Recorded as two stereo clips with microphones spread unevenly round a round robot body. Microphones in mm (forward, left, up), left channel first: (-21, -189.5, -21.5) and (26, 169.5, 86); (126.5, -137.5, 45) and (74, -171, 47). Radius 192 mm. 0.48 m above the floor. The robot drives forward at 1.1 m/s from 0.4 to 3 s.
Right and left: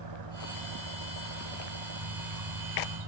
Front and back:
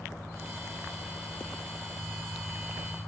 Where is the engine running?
115° left; by 3.1 s 120° left.